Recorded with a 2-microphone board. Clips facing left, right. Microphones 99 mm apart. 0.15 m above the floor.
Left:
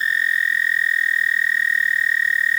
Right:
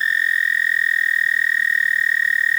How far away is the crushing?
No crushing in this recording.